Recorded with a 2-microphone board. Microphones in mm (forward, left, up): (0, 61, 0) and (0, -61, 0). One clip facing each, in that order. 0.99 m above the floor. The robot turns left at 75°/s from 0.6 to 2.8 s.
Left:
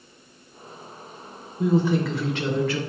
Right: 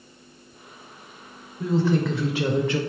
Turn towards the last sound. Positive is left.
turn(degrees=-50)